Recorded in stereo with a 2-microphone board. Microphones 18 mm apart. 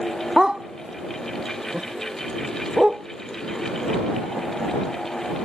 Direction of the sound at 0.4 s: 35° right (ahead or behind).